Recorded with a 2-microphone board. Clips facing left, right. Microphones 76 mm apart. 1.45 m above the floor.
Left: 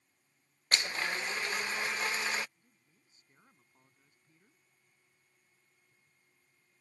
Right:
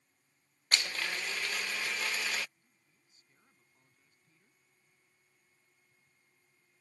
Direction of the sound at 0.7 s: 25° left (ahead or behind).